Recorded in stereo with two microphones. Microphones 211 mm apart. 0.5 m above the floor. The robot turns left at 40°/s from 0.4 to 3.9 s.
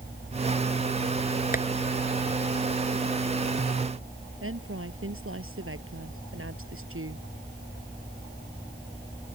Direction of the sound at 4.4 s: 85° right.